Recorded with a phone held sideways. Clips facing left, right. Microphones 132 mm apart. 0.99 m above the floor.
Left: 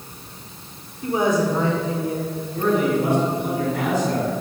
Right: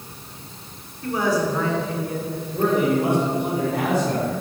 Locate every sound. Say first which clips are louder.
1.0 s a woman speaking: left 2 dB; 20° left (ahead or behind), 2.5 m; by 2.4 s 30° left (ahead or behind), 3 m
2.5 s a man speaking: even; 55° right (ahead or behind), 4.5 m